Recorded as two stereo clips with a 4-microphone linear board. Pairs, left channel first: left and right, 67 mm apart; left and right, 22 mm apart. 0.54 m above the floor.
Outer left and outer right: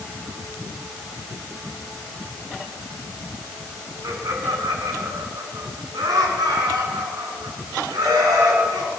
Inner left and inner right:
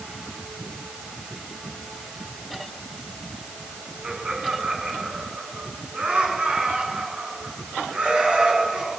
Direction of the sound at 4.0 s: 60° right (ahead or behind).